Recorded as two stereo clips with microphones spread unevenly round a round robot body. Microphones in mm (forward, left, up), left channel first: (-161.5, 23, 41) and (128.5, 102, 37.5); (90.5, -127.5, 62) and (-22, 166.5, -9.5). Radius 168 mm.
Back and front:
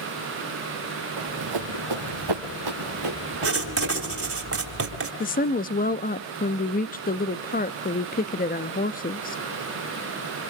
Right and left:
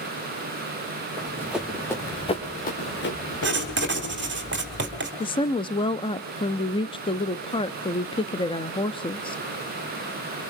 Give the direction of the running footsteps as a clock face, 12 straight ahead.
11 o'clock.